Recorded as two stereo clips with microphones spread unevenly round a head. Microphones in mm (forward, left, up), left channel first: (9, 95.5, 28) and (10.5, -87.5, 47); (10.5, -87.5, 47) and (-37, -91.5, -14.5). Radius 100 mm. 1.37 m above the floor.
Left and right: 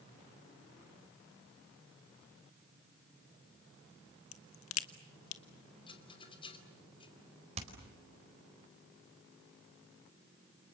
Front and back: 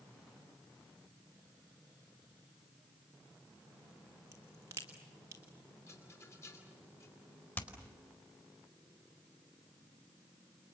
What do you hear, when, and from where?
4.3 s a crack: 105° left, 1.4 m
5.9 s a rattle: 25° left, 2.5 m
7.6 s hammering: 35° right, 4.5 m